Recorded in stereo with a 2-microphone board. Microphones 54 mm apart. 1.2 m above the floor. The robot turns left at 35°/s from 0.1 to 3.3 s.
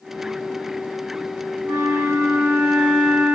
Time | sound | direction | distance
1.6 | a flute | 110° right | 7 m